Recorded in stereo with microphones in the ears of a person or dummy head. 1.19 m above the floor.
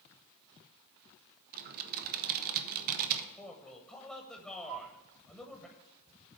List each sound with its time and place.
1.5 s typing on a keyboard: 45° right (ahead or behind), 0.7 m
3.4 s a man speaking: 5° left (ahead or behind), 1.0 m
4.7 s a flute: 60° right (ahead or behind), 0.9 m